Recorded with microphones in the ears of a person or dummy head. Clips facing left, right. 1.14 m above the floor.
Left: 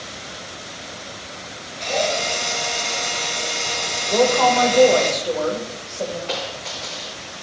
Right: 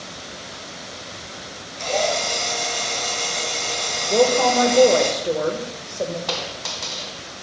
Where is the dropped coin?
75° right (ahead or behind), 2.5 m.